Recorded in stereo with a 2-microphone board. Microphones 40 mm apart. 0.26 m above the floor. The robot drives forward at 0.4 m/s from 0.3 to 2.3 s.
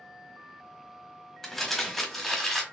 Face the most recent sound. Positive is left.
turn(degrees=10)  # may be behind; listen again after turning